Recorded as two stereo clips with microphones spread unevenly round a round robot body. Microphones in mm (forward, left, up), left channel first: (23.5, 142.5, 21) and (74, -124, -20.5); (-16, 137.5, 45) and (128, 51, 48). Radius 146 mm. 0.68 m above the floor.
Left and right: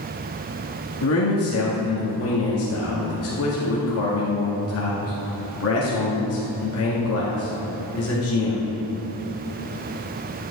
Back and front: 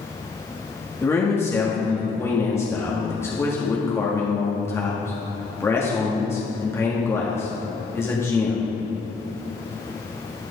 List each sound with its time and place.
1.0 s a man speaking: 80° left, 1.6 m